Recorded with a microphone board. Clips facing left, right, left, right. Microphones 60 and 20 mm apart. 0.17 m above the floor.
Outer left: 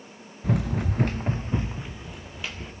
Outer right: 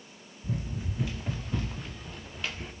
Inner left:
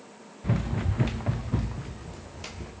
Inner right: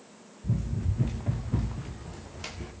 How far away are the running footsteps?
About 1.1 m.